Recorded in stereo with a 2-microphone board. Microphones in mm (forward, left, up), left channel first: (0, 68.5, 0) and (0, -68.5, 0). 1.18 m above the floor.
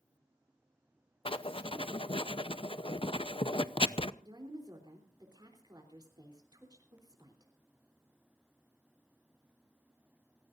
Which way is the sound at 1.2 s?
40° left (ahead or behind).